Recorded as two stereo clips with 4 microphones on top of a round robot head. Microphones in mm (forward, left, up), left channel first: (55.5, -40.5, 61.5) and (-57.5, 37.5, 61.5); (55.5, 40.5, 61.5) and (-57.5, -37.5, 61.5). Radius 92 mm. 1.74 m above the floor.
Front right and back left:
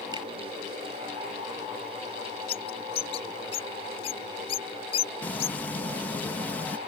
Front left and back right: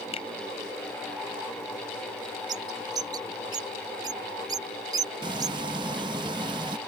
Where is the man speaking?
I don't hear a man speaking.